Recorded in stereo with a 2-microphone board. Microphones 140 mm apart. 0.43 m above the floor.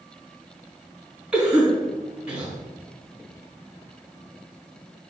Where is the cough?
5° right (ahead or behind), 3.5 m.